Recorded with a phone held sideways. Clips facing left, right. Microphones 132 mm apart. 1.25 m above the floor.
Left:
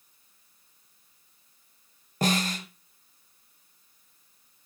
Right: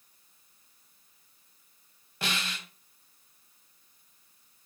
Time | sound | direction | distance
2.2 | a snare drum | 40° left (ahead or behind) | 1.5 m